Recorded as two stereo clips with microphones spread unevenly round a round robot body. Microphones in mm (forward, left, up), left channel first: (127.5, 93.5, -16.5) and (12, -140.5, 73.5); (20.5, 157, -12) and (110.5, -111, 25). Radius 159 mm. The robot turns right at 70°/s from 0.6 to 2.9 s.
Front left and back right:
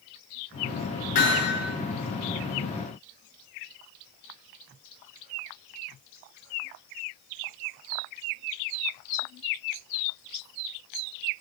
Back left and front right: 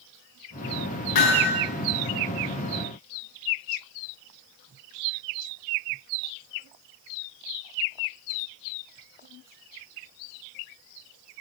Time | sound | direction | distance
1.1 | hammering | 125° left | 7.5 m